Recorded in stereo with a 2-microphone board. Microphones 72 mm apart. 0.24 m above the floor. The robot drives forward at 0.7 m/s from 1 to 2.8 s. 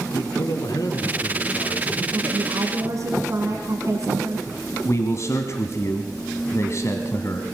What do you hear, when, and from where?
0.1 s a man speaking: 65° left (ahead or behind), 2 m; by 2.0 s 55° left (ahead or behind), 2.5 m
2.1 s a woman speaking: 55° right (ahead or behind), 3 m
4.8 s a man speaking: 45° left (ahead or behind), 1.6 m